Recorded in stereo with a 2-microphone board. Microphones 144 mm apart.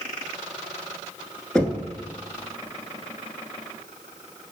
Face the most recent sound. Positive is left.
turn(degrees=5)  # may be behind; listen again after turning